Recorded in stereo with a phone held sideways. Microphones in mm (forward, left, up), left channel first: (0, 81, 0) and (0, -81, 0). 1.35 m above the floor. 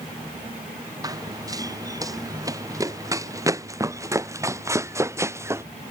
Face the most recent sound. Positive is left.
turn(degrees=-15)  # may be behind; listen again after turning